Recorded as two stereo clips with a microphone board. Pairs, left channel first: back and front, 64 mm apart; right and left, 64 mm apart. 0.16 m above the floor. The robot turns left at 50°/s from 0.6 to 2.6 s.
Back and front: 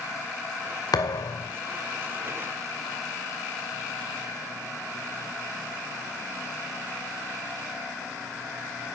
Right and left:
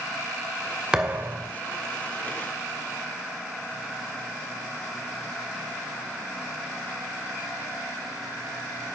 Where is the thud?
170° left, 1.6 m; by 1.5 s 140° left, 1.6 m.